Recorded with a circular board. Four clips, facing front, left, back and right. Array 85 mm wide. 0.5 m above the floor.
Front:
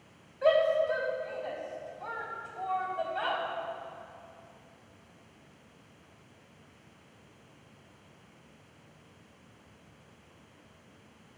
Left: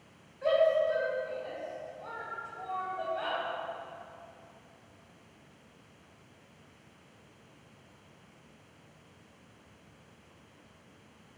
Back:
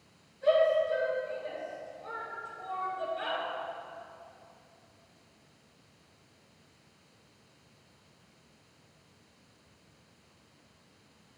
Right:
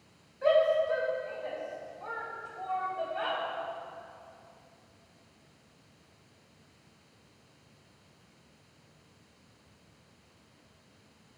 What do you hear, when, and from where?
0.4 s a shout: 15° right, 4 m